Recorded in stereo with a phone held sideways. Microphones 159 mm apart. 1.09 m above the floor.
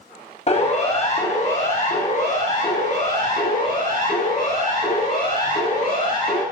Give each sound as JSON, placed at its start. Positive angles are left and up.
{"t": 0.5, "sound": "a siren", "side_deg": 45, "distance_m": 6.5}